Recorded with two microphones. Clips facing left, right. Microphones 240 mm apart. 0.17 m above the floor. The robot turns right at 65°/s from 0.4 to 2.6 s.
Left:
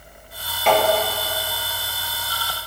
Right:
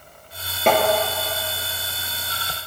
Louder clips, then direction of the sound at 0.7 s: Even; 50° right (ahead or behind).